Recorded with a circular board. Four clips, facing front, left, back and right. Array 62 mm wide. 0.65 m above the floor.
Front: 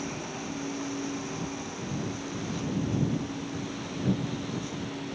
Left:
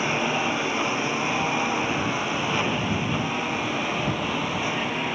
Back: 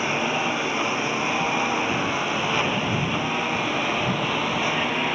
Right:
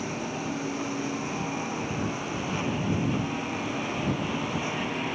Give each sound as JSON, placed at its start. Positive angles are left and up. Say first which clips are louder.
{"t": 0.0, "sound": "a lawn mower", "louder": "left 8 dB, back 12 dB", "azimuth_deg": 140}